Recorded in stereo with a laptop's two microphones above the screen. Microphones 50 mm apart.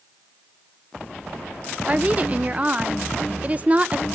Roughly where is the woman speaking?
Right.